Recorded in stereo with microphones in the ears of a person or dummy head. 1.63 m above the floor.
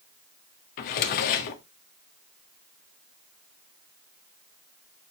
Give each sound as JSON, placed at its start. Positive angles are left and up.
{"t": 0.8, "sound": "a drawer", "side_deg": 45, "distance_m": 1.5}